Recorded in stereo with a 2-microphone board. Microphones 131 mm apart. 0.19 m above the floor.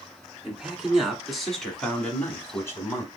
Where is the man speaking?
5° right (ahead or behind), 1.9 m; by 3.1 s 25° left (ahead or behind), 1.1 m.